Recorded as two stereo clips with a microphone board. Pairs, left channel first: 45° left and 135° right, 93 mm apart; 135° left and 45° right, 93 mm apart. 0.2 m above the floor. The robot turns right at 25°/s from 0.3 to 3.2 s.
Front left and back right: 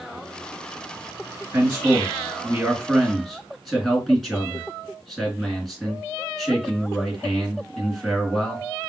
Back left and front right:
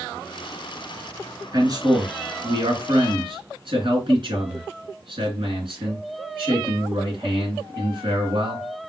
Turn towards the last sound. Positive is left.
turn(degrees=-40)